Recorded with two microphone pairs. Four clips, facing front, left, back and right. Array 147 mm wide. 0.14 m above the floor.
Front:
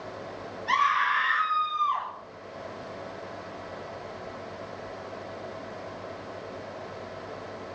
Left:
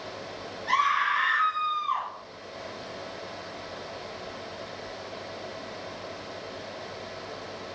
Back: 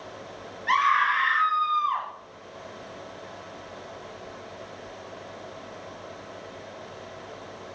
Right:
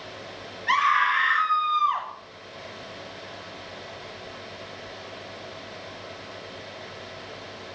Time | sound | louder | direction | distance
0.7 | a scream | right 3 dB, back 2 dB | 145° right | 2.5 m